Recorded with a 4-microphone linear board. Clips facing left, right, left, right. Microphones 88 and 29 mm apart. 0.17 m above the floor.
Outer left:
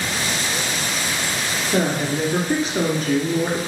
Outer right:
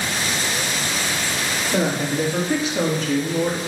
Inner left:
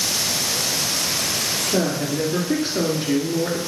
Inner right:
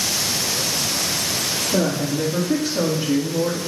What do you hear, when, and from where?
1.7 s a woman speaking: 20° left (ahead or behind), 2.5 m; by 3.6 s 55° left (ahead or behind), 2 m